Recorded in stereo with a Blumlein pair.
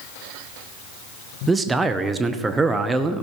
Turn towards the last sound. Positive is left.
turn(degrees=-15)